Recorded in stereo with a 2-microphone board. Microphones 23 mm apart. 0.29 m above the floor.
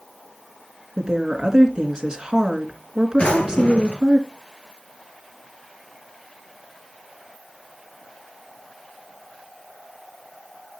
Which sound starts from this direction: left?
A drawer, at 3.2 s.